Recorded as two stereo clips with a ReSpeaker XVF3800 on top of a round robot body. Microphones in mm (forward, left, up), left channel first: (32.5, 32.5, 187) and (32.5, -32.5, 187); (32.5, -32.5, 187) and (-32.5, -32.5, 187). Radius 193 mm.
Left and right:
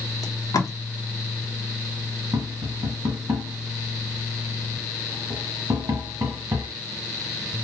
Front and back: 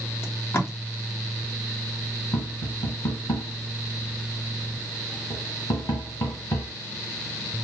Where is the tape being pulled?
55° left, 1.1 m.